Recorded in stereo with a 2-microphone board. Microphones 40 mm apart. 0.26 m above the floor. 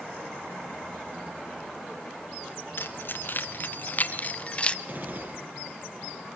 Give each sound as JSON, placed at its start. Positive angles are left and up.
{"t": 2.8, "sound": "keys jangling", "side_deg": 60, "distance_m": 3.0}
{"t": 4.9, "sound": "a gunshot", "side_deg": -50, "distance_m": 7.5}